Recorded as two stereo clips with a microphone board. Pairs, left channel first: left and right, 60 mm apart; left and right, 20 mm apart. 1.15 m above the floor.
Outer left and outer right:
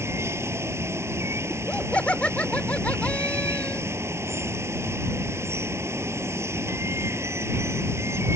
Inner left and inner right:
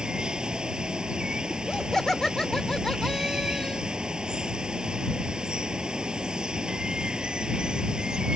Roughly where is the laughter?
Left.